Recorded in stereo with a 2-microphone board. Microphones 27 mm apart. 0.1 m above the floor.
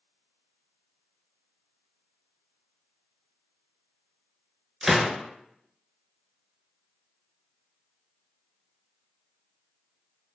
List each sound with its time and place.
4.8 s a gunshot: 5° right (ahead or behind), 0.9 m